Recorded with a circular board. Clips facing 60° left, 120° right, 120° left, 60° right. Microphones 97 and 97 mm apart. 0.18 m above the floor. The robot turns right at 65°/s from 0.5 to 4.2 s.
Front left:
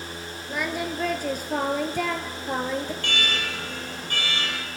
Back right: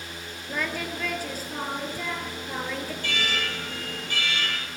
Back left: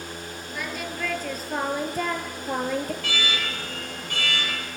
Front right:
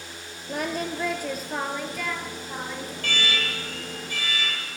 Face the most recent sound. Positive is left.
turn(degrees=110)